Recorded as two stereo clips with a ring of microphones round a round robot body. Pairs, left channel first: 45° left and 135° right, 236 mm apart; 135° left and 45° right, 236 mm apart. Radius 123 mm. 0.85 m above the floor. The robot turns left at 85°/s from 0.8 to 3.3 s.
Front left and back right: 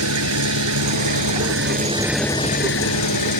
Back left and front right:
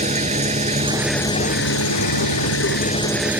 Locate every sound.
0.0 s an engine running: 110° right; by 3.4 s 40° left